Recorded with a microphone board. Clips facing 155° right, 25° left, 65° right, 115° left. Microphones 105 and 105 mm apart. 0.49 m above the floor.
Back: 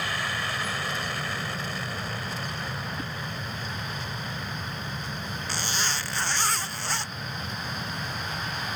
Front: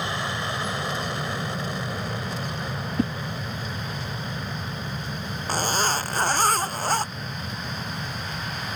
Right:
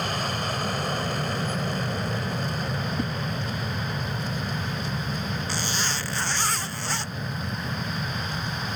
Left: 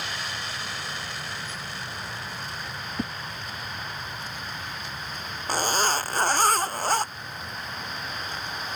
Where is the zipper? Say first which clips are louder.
Front 9 dB, left 5 dB; 70° left.